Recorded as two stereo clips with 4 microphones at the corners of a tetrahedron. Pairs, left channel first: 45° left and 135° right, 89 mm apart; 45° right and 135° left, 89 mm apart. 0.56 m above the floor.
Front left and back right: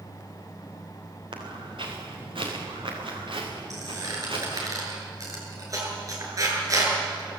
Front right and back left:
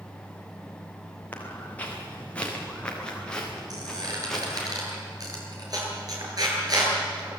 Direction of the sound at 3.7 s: 175° left.